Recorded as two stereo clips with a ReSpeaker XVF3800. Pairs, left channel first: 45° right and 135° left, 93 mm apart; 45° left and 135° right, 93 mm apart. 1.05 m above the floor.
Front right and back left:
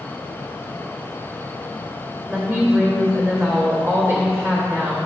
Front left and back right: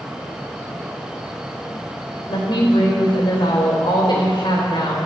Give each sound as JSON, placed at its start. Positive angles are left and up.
{"t": 2.3, "sound": "a woman speaking", "azimuth_deg": 75, "distance_m": 3.0}